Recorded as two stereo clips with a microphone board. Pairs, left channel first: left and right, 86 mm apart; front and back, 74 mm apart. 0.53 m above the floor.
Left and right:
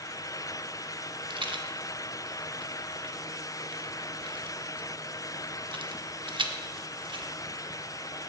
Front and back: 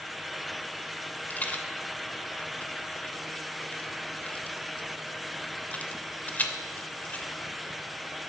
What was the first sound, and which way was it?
A rattle, 70° right.